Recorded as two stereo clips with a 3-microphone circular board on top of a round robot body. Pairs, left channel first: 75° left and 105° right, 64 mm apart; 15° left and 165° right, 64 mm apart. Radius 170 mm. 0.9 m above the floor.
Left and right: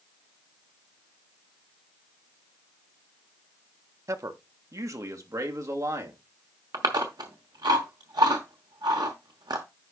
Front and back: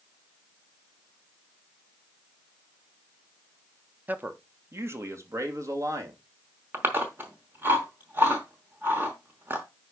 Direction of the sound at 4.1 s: 105° right.